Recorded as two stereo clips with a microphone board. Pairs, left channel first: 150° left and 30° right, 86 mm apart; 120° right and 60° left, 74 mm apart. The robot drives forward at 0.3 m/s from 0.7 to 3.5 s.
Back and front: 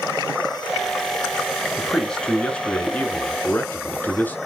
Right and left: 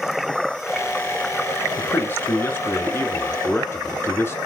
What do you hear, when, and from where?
1.8 s a man speaking: 130° right, 1.3 m; by 4.4 s 155° right, 1.6 m